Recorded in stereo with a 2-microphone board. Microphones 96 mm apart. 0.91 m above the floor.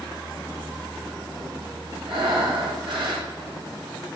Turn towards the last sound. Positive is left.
turn(degrees=-70)  # may be behind; listen again after turning